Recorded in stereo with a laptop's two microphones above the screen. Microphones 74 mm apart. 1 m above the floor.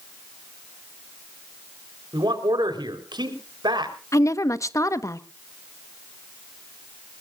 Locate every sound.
2.1 s a man speaking: 85° right, 3.5 m
4.1 s a woman speaking: 45° left (ahead or behind), 1.1 m